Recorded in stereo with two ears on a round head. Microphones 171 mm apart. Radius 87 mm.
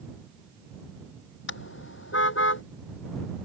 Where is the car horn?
65° left (ahead or behind).